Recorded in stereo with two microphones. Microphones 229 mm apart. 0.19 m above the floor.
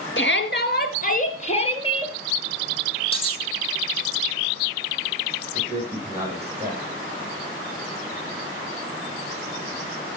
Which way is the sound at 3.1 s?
25° left (ahead or behind).